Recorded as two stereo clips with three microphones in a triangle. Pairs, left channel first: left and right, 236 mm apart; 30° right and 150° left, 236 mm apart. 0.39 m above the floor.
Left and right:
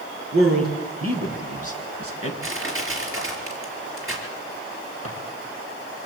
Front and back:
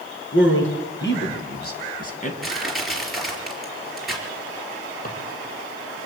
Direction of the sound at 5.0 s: 85° right.